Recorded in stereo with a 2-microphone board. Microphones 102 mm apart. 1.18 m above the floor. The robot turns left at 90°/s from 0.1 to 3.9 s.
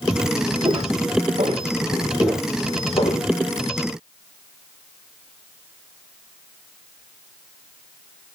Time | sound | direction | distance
0.6 | footsteps | 45° right (ahead or behind) | 5.5 m